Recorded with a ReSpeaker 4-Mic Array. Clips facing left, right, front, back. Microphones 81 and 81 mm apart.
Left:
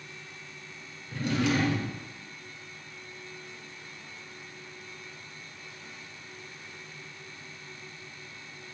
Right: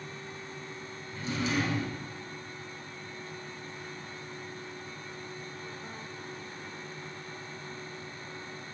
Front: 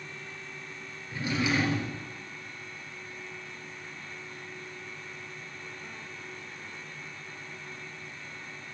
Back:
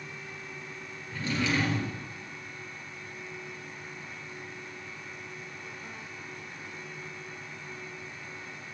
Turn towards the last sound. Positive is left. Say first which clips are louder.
# left 4 dB, front 1 dB
turn(degrees=75)